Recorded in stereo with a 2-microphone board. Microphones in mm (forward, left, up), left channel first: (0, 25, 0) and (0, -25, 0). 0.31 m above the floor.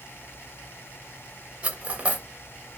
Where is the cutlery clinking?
25° right (ahead or behind), 0.7 m.